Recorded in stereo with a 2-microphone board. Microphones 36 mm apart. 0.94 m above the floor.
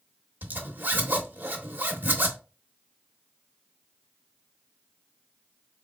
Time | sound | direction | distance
0.4 | a zipper | 60° right (ahead or behind) | 1.0 m